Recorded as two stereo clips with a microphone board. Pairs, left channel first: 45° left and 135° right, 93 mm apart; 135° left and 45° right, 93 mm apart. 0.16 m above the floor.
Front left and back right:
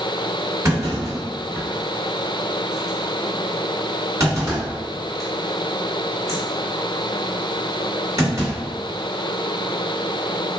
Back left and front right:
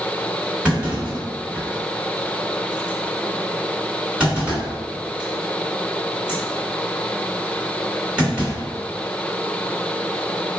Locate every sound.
0.7 s a clunk: 120° right, 2.0 m